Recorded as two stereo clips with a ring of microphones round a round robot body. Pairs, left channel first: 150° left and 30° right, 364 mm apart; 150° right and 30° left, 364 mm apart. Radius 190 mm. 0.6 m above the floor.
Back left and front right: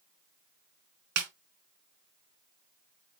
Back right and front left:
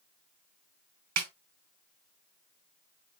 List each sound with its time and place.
1.2 s a snare drum: 20° right, 1.8 m